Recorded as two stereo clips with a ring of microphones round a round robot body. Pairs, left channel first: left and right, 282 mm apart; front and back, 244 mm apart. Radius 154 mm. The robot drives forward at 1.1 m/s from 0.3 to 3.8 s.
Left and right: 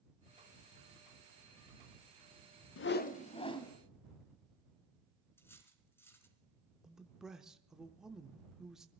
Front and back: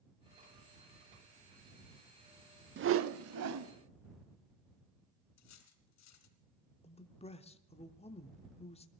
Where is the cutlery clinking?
5° left, 3 m.